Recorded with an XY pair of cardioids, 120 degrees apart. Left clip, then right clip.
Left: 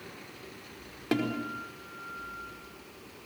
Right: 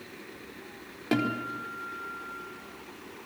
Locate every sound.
1.1 s a guitar: straight ahead, 4.5 m